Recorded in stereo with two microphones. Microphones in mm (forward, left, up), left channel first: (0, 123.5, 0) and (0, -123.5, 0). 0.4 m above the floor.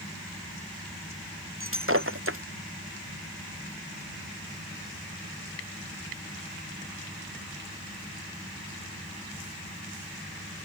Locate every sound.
1.6 s breaking glass: 55° right (ahead or behind)